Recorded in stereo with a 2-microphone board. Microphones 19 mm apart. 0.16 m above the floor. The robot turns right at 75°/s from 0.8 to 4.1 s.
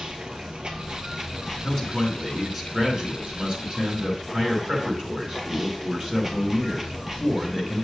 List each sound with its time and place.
0.0 s running water: 50° right, 1.1 m; by 7.8 s 160° right, 1.1 m
1.6 s a man speaking: 115° left, 2.5 m; by 7.8 s 60° right, 2.5 m